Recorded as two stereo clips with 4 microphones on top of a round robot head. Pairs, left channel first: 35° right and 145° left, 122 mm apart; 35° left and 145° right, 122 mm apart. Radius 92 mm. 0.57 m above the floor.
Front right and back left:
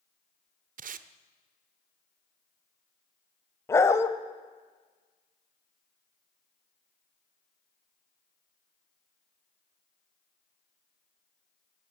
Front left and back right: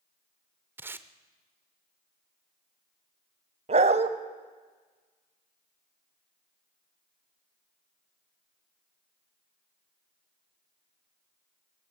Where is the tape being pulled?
145° left, 0.7 m.